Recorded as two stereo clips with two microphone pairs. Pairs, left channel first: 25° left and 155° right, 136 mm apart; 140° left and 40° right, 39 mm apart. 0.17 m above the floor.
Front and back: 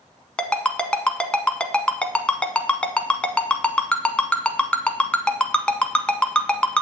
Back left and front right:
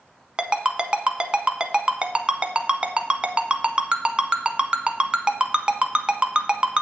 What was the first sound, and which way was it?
A ringtone, 50° right.